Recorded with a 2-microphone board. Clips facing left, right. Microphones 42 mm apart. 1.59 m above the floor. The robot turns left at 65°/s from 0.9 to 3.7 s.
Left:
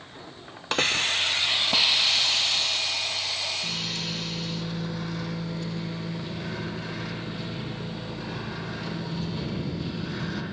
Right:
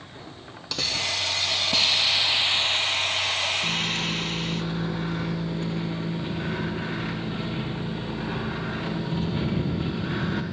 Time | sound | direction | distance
0.7 | a hiss | 70° left | 0.5 m
3.6 | a microwave | 40° right (ahead or behind) | 1.3 m